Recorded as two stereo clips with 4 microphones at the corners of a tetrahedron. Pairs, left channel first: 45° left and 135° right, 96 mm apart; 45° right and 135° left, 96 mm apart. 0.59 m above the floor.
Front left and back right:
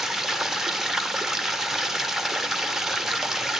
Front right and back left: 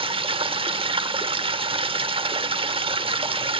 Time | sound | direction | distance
0.0 | running water | 140° left | 0.8 m